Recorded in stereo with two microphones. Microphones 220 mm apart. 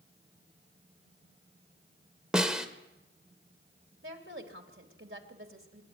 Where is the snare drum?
5° right (ahead or behind), 1.6 m.